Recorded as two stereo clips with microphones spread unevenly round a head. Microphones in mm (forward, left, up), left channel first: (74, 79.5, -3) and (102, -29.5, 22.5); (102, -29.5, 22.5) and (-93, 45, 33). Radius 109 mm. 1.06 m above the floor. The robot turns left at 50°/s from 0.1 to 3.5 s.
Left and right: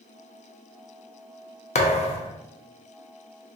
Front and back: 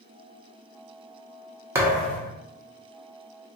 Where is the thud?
85° left, 0.6 m; by 2.3 s 55° left, 0.6 m.